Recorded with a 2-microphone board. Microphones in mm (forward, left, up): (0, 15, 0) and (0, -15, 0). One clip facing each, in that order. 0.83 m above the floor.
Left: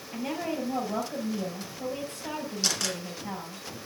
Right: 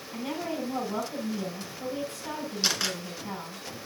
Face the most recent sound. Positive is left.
turn(degrees=-15)  # may be behind; listen again after turning